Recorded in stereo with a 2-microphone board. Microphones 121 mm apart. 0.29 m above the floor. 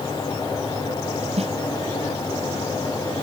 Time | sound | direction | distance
1.4 | a snare drum | 65° right (ahead or behind) | ?